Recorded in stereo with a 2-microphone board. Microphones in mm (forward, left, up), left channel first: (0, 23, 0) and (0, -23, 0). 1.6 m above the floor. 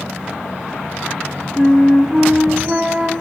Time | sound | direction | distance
1.6 | a flute | 10° right (ahead or behind) | 3 m